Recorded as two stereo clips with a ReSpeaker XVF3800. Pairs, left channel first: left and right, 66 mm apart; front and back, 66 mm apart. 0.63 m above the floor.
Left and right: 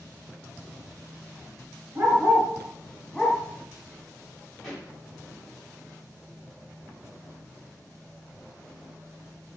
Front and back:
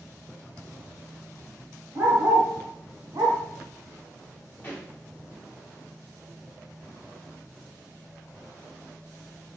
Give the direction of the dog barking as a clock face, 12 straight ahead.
5 o'clock.